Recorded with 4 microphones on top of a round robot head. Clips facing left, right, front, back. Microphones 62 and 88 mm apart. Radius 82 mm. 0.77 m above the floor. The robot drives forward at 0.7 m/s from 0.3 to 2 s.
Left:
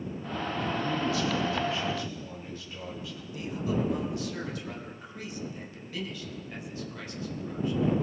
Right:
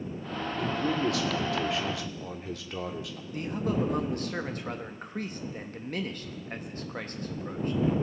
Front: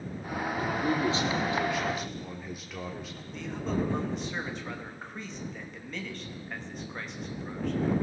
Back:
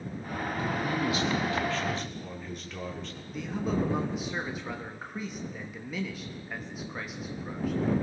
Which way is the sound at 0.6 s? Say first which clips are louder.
Right 3 dB, front 2 dB; 55° right.